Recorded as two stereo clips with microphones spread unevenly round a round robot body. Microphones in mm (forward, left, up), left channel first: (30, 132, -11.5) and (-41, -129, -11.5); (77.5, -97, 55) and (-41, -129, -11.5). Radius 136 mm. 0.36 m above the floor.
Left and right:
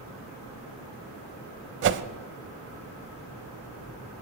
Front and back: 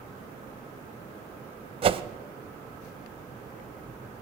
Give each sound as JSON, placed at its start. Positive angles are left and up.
{"t": 1.8, "sound": "a whoosh", "azimuth_deg": -150, "distance_m": 0.8}